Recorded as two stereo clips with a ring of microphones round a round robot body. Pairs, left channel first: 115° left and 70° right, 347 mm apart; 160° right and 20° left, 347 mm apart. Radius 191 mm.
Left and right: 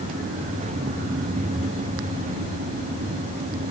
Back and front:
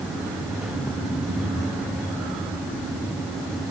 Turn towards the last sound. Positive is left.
No sound to turn to.